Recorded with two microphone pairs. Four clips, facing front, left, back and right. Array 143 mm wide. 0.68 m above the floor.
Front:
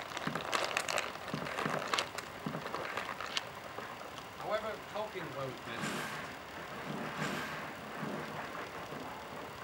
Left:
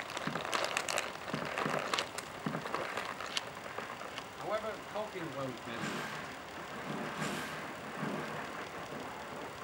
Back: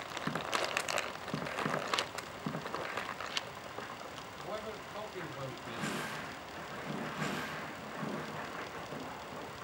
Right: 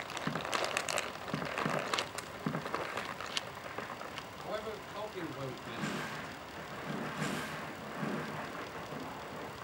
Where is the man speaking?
35° left, 4 m; by 6.3 s 60° left, 3 m.